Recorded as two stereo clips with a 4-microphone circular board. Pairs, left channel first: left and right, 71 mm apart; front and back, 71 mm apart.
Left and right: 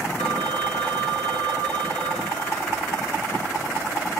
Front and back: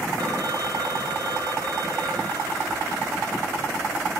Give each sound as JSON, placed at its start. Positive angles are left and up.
{"t": 0.2, "sound": "a phone ringing", "azimuth_deg": 165, "distance_m": 4.0}